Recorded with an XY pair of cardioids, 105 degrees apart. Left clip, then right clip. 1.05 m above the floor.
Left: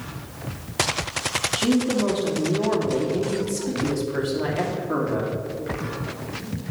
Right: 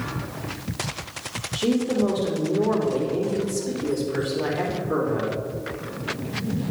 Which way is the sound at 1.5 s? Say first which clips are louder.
Right 3 dB; 60° left.